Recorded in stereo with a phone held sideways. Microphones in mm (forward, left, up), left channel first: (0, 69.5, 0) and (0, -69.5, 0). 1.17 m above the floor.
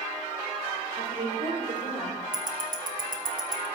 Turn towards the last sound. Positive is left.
turn(degrees=-80)